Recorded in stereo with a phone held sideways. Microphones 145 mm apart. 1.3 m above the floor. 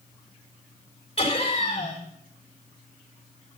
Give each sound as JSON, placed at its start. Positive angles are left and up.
{"t": 1.2, "sound": "laughter", "side_deg": 40, "distance_m": 4.0}